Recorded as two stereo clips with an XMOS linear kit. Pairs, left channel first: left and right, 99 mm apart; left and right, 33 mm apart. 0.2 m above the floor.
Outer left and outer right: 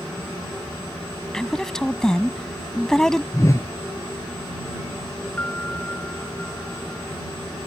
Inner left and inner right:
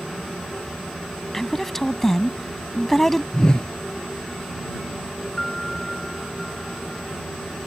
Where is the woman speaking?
5° left (ahead or behind).